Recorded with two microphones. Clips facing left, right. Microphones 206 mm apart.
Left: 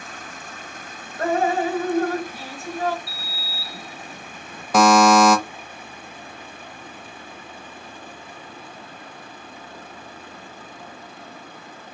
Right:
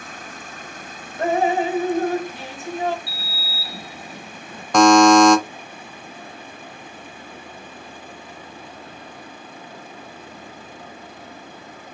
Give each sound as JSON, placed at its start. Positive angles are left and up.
{"t": 1.2, "sound": "dripping", "side_deg": -20, "distance_m": 1.0}
{"t": 3.1, "sound": "a sliding door", "side_deg": -35, "distance_m": 2.0}
{"t": 4.7, "sound": "a buzzer", "side_deg": 5, "distance_m": 0.8}